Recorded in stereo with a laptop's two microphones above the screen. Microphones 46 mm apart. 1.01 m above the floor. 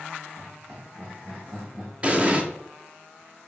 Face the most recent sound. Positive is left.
turn(degrees=-30)  # may be behind; listen again after turning